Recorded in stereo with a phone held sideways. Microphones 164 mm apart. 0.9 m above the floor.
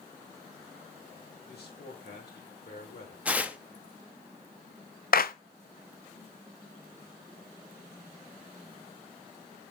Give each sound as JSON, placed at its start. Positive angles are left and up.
{"t": 1.5, "sound": "a man speaking", "side_deg": 80, "distance_m": 3.5}
{"t": 3.2, "sound": "tearing paper", "side_deg": -10, "distance_m": 0.6}
{"t": 5.1, "sound": "a clap", "side_deg": 65, "distance_m": 0.6}